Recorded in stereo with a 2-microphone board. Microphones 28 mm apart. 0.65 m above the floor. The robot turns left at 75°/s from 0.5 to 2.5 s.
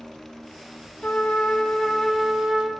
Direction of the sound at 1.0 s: 80° left.